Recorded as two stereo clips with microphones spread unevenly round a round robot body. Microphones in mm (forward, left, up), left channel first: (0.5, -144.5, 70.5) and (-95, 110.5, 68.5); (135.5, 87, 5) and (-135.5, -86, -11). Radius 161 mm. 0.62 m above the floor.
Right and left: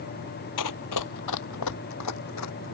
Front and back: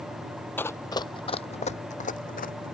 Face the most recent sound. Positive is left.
turn(degrees=-30)